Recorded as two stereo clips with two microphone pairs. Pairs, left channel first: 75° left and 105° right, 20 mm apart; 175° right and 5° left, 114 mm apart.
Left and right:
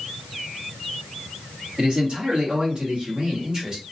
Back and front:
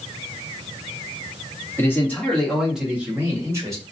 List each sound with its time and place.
1.8 s a man speaking: 115° right, 1.5 m; by 3.8 s 50° right, 1.6 m